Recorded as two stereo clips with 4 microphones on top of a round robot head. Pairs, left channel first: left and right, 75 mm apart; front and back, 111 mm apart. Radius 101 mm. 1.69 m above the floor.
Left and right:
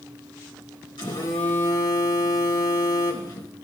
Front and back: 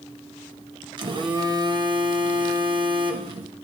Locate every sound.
1.0 s a phone buzzing: 140° left, 1.5 m